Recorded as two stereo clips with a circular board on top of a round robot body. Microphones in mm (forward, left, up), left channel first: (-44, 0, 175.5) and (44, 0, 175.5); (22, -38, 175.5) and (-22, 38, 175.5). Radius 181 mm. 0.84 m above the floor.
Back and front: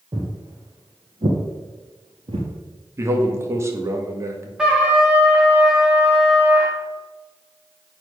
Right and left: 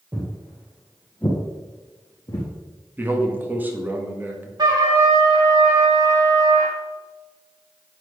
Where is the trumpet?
80° left, 0.7 m.